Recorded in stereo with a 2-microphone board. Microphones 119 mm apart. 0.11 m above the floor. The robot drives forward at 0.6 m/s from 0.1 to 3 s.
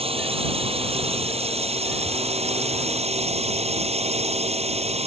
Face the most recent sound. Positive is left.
turn(degrees=-60)  # may be behind; listen again after turning